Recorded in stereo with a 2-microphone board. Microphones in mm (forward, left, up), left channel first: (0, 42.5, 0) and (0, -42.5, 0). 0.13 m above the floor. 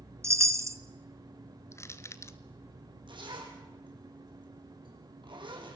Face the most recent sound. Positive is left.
turn(degrees=-70)  # may be behind; listen again after turning